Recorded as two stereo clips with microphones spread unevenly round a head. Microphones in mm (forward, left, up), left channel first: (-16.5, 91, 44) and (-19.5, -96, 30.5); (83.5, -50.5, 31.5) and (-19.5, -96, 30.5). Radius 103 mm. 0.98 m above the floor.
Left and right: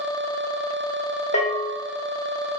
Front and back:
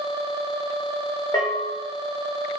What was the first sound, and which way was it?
A bell, 65° left.